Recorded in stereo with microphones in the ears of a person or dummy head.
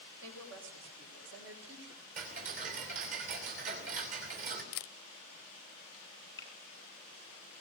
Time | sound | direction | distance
0.2 | a woman speaking | 80° right | 6.5 m
2.2 | ticking | 45° right (ahead or behind) | 3 m
4.7 | a camera shutter | 55° left (ahead or behind) | 0.6 m
6.4 | a finger snap | 20° left (ahead or behind) | 6.5 m